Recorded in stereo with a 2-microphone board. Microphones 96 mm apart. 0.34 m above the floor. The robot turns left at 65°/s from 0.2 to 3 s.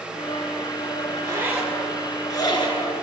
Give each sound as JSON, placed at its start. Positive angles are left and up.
{"t": 1.1, "sound": "a zipper", "side_deg": -45, "distance_m": 1.8}